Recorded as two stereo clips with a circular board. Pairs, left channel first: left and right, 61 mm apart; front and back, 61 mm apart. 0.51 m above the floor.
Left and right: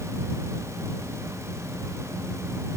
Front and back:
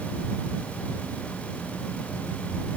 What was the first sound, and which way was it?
Only background noise.